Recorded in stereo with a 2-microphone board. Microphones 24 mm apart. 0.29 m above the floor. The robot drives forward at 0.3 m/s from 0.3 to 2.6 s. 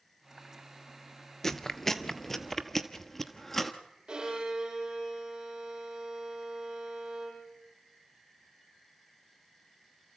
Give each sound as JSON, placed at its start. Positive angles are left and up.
{"t": 1.4, "sound": "chewing", "side_deg": 20, "distance_m": 0.8}
{"t": 4.1, "sound": "a violin", "side_deg": -35, "distance_m": 5.5}